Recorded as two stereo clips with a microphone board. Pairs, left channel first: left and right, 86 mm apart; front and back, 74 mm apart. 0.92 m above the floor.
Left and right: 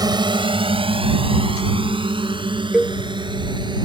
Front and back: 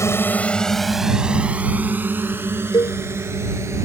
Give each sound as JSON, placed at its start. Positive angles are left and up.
{"t": 0.0, "sound": "a drone", "azimuth_deg": -50}
{"t": 2.7, "sound": "a cowbell", "azimuth_deg": -10}